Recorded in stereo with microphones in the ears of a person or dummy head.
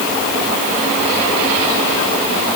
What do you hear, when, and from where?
Only background noise.